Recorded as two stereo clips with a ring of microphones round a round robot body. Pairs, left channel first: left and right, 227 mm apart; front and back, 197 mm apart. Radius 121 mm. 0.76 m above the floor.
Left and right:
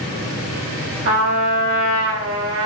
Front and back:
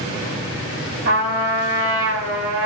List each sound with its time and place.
1.1 s a trumpet: 125° right, 2.0 m